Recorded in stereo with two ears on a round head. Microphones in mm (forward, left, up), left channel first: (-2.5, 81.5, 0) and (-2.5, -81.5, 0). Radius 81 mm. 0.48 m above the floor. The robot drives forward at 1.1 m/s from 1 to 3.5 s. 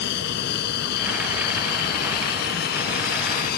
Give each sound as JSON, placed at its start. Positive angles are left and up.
{"t": 0.0, "sound": "an aircraft", "side_deg": 65}